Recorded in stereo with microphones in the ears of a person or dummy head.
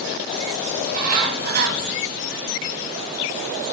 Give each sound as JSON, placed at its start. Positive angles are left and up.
{"t": 0.8, "sound": "a bird", "side_deg": -55, "distance_m": 0.8}